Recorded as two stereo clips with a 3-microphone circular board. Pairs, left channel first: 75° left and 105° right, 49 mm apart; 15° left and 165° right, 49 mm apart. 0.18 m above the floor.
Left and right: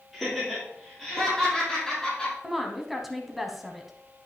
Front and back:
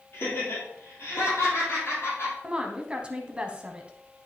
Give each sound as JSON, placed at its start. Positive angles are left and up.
{"t": 0.1, "sound": "laughter", "azimuth_deg": -20, "distance_m": 4.5}
{"t": 2.4, "sound": "a woman speaking", "azimuth_deg": 175, "distance_m": 1.0}